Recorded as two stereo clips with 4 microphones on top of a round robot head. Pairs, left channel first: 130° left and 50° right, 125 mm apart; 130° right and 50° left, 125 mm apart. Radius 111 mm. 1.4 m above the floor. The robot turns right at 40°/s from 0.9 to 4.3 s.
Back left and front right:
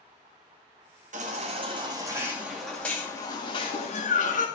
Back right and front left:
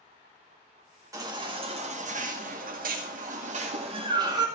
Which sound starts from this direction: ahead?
A baby crying, at 1.1 s.